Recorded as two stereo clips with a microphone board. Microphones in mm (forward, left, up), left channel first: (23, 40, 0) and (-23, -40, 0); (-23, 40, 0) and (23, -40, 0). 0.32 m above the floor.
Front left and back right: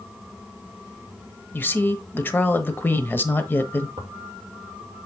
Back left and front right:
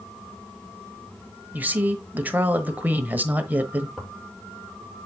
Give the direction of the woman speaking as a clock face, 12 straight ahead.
12 o'clock.